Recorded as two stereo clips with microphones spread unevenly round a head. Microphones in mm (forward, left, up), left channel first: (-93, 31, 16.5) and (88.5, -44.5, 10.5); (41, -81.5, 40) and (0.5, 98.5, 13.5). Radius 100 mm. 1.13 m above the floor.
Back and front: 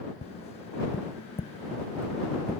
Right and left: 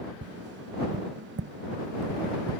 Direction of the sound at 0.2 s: 95° left.